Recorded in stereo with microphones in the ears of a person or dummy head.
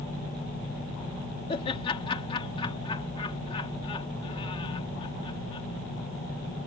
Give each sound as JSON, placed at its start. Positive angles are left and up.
{"t": 1.5, "sound": "laughter", "side_deg": 40}